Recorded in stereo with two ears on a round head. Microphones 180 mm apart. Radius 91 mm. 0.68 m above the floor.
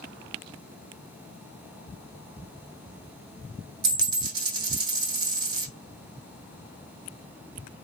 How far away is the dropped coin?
About 0.7 m.